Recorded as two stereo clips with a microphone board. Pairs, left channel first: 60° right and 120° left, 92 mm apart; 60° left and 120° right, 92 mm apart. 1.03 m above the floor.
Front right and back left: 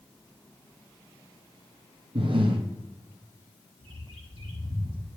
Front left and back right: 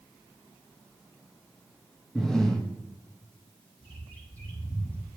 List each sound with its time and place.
2.1 s breathing: 145° left, 1.0 m
3.8 s a bird: 135° left, 1.9 m